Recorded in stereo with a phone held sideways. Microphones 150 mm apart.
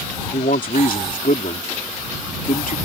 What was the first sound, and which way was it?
A man speaking, 80° left.